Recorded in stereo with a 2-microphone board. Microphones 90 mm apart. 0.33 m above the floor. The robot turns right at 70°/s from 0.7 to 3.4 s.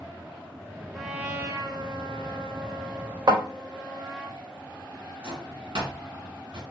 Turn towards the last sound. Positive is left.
turn(degrees=-75)  # may be behind; listen again after turning